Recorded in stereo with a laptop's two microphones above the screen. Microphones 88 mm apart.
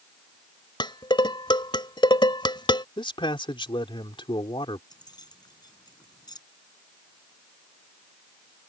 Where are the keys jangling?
50° left (ahead or behind).